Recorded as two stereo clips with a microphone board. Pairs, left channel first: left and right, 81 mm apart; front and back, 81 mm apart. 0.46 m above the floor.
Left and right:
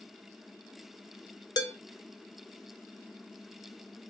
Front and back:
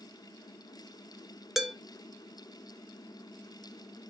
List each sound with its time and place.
1.6 s dishes clattering: 95° left, 0.6 m